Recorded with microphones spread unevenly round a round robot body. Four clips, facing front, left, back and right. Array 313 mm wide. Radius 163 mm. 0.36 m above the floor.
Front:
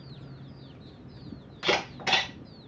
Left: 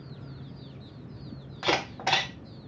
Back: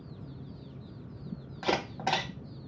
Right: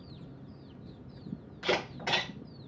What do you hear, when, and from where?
1.6 s a camera shutter: 110° left, 1.7 m